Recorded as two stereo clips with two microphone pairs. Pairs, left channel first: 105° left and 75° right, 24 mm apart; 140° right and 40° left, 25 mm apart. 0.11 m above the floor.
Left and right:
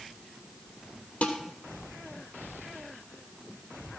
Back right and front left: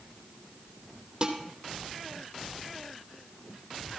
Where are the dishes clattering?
100° left, 2.5 m.